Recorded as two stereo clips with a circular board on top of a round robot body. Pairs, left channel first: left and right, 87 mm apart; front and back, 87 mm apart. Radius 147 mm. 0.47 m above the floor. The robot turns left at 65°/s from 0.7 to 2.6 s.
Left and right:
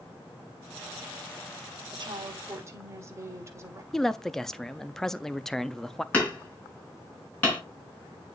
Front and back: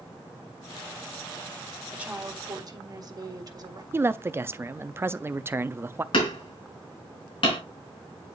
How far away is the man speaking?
About 0.7 m.